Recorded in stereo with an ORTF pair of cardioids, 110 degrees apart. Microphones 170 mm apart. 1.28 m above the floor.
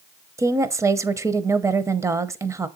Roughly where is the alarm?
No alarm in this recording.